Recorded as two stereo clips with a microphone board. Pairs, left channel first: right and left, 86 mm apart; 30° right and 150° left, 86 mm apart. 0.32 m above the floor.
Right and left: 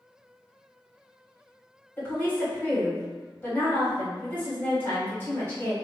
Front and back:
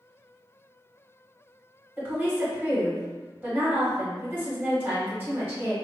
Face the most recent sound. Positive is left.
turn(degrees=-150)